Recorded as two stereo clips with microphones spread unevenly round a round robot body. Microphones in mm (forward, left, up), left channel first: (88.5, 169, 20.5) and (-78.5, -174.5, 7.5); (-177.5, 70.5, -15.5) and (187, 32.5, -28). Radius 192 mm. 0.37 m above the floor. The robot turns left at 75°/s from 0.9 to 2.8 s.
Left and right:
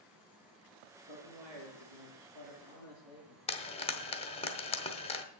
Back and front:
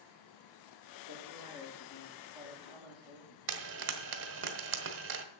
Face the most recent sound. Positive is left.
turn(degrees=0)